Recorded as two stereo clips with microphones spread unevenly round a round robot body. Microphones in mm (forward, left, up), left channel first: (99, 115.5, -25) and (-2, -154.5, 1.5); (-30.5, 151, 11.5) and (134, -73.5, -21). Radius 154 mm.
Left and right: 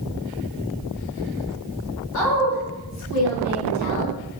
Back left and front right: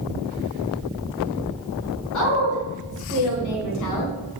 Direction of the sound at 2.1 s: 105° left.